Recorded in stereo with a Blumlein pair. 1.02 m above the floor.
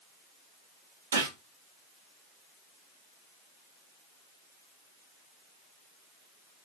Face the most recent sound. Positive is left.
turn(degrees=-70)